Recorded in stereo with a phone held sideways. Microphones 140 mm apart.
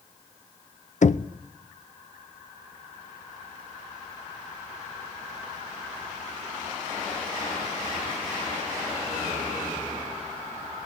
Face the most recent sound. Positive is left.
turn(degrees=60)  # may be behind; listen again after turning